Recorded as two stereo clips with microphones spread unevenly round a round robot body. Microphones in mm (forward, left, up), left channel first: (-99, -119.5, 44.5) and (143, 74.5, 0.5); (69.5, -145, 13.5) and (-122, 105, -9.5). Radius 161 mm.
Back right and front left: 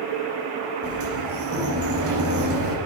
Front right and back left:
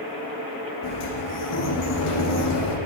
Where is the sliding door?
10° right, 8.5 m.